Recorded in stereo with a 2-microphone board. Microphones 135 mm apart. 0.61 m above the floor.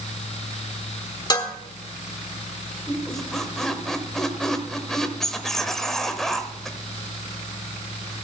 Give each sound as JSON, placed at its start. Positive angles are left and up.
{"t": 1.3, "sound": "dishes clattering", "side_deg": 30, "distance_m": 1.1}
{"t": 2.9, "sound": "a squeak", "side_deg": 5, "distance_m": 1.0}